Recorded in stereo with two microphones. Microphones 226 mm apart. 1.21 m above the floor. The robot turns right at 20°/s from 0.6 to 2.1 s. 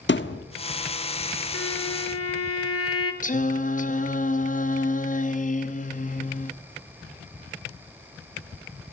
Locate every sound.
0.1 s a thud: 55° left (ahead or behind), 1.3 m
1.5 s a violin: 80° left, 3 m; by 3.1 s 90° left, 3 m
3.2 s singing: 35° left (ahead or behind), 1.2 m